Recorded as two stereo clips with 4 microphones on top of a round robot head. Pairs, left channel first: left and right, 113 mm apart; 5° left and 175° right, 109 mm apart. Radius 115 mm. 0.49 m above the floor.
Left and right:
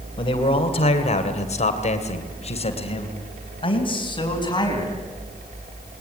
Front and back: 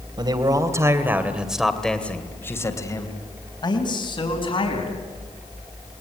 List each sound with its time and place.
0.2 s a man speaking: 135° left, 3 m; by 4.9 s 40° left, 5 m